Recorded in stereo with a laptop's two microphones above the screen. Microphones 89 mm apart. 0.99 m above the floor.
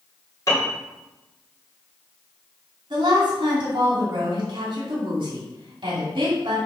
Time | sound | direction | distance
0.5 | a piano | 40° left (ahead or behind) | 2 m
2.9 | a woman speaking | 60° right (ahead or behind) | 2.5 m